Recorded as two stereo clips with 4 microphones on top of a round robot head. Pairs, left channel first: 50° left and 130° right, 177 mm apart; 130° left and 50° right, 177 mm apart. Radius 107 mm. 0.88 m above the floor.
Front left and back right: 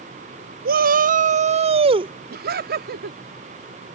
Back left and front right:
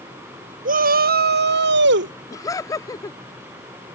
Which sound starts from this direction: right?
A shout, at 0.7 s.